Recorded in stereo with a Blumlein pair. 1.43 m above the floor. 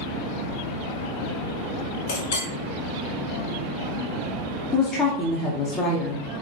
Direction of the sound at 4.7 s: 20° left.